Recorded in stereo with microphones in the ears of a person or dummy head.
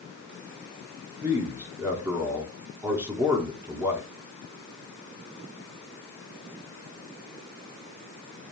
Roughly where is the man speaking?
Centre.